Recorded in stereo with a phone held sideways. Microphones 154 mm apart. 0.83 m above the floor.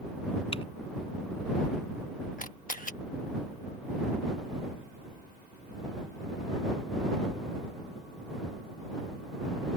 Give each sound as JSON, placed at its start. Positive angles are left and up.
{"t": 0.5, "sound": "typing on a keyboard", "side_deg": 35}
{"t": 2.4, "sound": "a camera shutter", "side_deg": 60}